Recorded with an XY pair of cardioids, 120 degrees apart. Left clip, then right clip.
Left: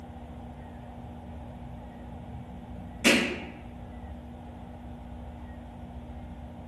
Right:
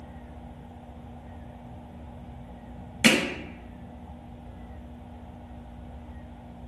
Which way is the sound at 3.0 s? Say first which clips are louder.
Right 2 dB; 70° right.